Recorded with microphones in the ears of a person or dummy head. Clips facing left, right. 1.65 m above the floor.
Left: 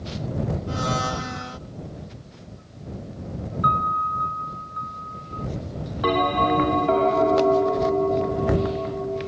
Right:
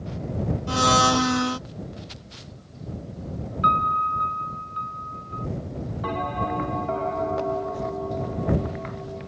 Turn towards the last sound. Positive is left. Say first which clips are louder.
# left 8 dB
turn(degrees=90)